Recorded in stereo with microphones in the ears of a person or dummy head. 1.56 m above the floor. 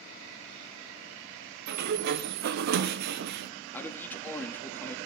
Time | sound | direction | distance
1.7 | a sliding door | 60° right (ahead or behind) | 0.8 m
3.7 | a man speaking | 10° left (ahead or behind) | 2.5 m